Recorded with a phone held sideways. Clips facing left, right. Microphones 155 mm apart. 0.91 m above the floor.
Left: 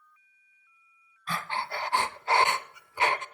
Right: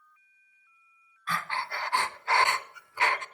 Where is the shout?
I don't hear a shout.